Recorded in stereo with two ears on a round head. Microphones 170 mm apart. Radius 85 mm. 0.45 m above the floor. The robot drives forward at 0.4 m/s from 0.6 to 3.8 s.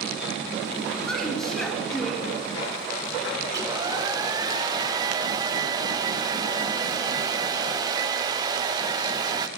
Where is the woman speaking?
Centre (ahead or behind), 3 m; by 2.4 s 5° left (ahead or behind), 2.5 m.